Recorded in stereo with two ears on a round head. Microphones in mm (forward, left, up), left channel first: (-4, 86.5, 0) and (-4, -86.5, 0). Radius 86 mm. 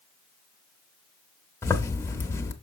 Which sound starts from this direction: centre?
A zipper, at 1.6 s.